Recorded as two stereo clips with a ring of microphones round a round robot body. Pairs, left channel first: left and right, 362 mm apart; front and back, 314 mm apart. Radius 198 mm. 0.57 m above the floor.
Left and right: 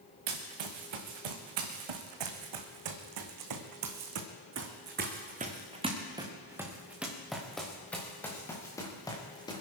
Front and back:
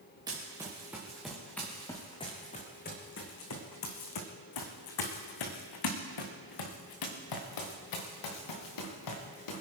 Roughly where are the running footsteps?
Right.